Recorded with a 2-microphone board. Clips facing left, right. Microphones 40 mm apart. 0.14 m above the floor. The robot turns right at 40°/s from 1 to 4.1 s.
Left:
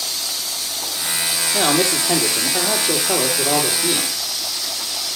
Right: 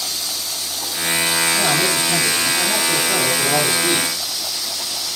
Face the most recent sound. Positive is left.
turn(degrees=180)